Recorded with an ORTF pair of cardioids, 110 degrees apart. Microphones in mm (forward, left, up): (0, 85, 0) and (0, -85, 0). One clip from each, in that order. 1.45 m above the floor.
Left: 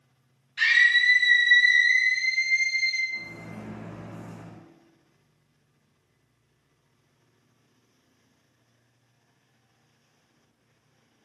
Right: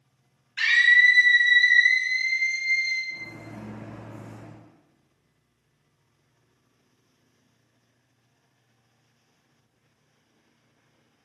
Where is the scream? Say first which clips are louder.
Right 2 dB; 45° right, 1.9 m; by 3.0 s 10° right, 2.5 m.